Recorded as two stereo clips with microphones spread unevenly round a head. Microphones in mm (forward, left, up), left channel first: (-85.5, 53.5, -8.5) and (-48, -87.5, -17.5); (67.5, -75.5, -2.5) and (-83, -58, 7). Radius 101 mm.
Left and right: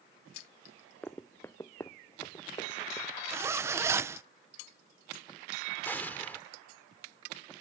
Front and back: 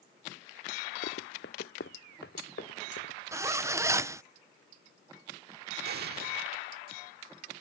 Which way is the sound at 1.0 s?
25° left.